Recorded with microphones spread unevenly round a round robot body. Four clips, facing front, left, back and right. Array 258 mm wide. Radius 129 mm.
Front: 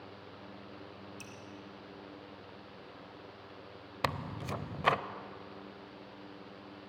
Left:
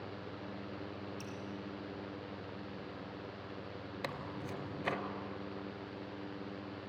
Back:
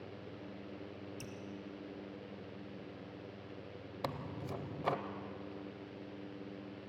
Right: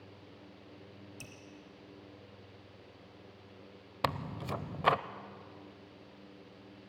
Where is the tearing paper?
50° right, 0.8 m.